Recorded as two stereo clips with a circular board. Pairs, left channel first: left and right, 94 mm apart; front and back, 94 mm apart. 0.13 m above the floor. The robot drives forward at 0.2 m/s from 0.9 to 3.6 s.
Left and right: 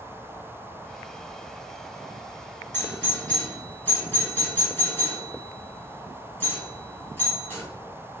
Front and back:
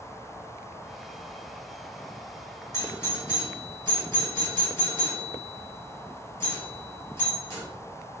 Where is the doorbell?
35° left, 1.7 m; by 7.6 s 45° left, 1.7 m.